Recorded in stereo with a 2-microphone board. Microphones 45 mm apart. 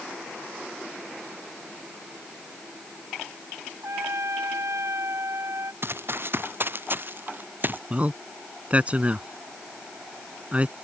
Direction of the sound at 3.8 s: 85° right.